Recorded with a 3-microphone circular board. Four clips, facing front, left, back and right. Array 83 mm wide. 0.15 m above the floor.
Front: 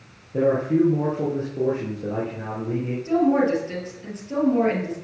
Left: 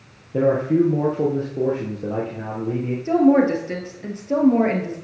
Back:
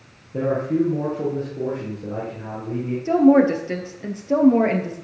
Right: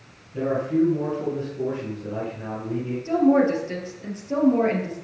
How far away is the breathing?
I don't hear breathing.